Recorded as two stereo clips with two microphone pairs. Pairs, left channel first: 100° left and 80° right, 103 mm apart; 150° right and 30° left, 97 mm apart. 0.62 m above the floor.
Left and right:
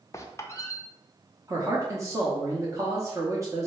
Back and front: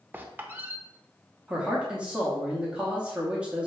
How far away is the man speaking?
About 0.8 m.